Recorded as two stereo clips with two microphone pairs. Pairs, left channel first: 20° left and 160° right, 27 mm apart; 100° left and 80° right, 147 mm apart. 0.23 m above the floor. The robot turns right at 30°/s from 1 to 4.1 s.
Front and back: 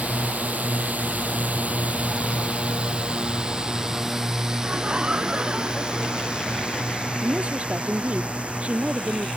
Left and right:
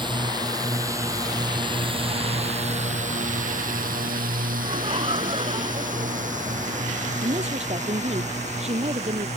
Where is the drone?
135° right; by 9.4 s 120° right.